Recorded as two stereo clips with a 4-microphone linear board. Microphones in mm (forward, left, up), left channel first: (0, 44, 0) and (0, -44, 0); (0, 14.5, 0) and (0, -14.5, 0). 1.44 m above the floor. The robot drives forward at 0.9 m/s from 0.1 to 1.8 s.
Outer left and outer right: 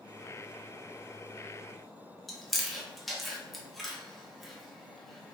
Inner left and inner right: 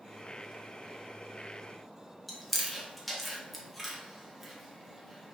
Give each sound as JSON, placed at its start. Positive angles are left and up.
{"t": 2.3, "sound": "chewing", "side_deg": 0, "distance_m": 1.0}